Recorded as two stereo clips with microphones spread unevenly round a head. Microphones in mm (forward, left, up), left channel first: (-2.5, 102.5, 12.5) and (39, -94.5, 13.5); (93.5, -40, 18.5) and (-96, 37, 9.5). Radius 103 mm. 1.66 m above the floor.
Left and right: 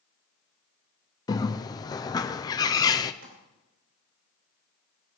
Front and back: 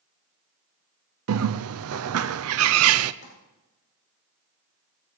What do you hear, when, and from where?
1.3 s a bird: 175° left, 0.5 m
3.2 s crumpling: 55° right, 6.5 m